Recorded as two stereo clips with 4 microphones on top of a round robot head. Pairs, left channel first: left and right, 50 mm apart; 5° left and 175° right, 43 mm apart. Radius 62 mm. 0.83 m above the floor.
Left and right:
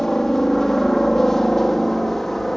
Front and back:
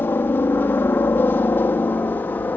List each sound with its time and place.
0.0 s a helicopter: 10° left; by 2.6 s 5° left